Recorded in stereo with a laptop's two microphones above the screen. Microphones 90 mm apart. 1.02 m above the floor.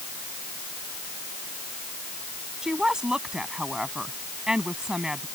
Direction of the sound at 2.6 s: 5° right (ahead or behind).